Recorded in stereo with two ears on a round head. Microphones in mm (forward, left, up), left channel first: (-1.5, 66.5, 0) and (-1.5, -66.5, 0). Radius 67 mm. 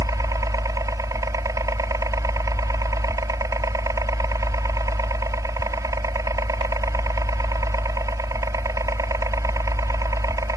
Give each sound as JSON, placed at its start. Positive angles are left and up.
{"t": 0.0, "sound": "a helicopter", "side_deg": -25}